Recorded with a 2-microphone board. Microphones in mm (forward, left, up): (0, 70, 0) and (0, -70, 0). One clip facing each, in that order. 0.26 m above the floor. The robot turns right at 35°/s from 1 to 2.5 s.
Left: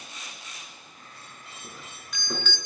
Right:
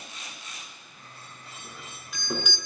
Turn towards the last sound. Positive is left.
turn(degrees=-15)  # may be behind; listen again after turning